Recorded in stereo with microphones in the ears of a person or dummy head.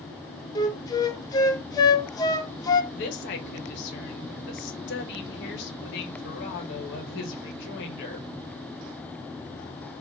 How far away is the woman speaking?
About 1.2 m.